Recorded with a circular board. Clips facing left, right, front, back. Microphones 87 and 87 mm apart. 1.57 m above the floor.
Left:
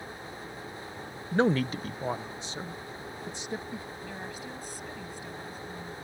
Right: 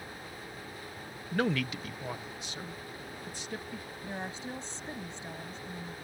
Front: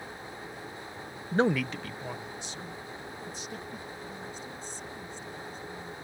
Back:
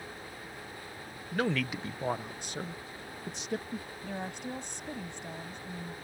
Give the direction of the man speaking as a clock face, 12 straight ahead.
11 o'clock.